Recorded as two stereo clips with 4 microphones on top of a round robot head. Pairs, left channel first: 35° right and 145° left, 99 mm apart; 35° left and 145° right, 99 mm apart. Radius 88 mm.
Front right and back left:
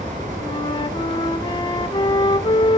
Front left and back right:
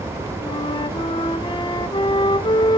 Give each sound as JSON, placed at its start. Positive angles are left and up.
{"t": 0.4, "sound": "a flute", "azimuth_deg": 5, "distance_m": 1.3}